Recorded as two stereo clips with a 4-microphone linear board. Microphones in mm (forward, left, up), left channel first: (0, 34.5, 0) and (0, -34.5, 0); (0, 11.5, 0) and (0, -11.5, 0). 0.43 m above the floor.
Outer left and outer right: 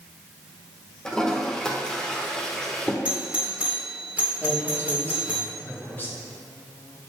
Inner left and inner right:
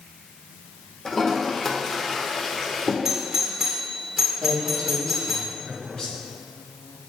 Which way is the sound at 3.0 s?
20° right (ahead or behind).